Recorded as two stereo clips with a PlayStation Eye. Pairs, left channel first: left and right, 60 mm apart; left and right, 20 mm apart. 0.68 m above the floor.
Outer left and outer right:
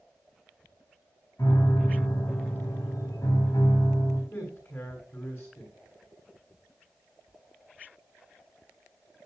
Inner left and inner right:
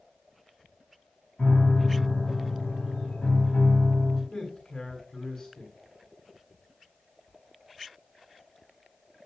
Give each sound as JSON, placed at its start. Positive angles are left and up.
{"t": 1.4, "sound": "a piano", "side_deg": 60, "distance_m": 4.0}
{"t": 4.3, "sound": "a man speaking", "side_deg": 35, "distance_m": 8.5}